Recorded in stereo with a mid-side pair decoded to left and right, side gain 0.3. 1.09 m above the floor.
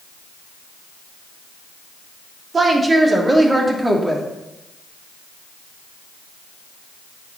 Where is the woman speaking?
45° right, 2.5 m; by 4.2 s 20° right, 2.5 m.